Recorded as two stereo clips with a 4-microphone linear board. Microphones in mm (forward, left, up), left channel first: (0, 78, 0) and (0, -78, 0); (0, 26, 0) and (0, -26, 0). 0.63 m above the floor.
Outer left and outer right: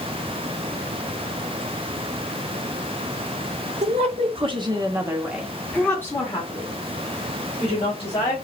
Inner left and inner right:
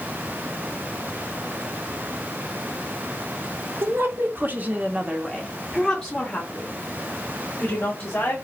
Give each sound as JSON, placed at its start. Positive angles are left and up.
{"t": 3.8, "sound": "a woman speaking", "side_deg": -45, "distance_m": 1.4}